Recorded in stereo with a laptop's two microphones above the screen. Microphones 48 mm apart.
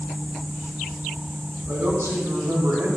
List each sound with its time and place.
1.7 s a woman speaking: 60° right (ahead or behind), 4 m; by 2.9 s 75° right (ahead or behind), 3 m